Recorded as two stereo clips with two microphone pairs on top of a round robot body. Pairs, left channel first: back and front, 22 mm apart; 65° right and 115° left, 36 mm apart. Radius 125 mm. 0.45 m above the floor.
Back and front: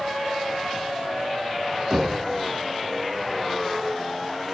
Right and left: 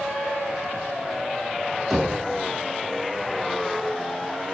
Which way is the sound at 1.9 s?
25° left.